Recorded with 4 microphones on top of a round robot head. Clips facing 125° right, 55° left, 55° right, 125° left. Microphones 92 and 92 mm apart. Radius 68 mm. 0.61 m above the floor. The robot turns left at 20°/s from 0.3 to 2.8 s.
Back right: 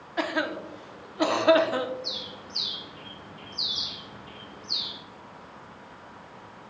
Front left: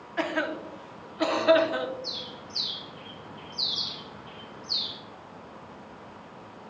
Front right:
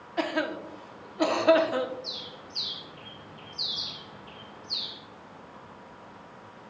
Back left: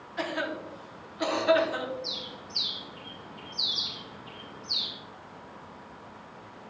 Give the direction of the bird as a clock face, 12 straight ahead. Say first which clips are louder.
Even, back left 2 dB; 7 o'clock.